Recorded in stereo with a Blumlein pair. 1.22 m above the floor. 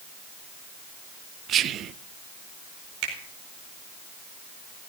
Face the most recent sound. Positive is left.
turn(degrees=-45)